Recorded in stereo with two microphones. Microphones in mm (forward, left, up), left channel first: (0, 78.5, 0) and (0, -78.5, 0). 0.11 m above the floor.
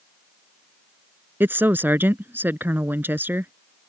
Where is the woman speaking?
15° right (ahead or behind).